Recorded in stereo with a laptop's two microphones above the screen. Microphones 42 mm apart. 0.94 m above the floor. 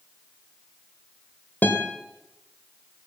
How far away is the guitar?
About 2 m.